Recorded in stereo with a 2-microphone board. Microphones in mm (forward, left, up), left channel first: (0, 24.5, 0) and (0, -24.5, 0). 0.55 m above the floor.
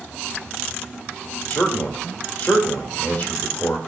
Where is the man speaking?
50° left (ahead or behind), 1.3 m.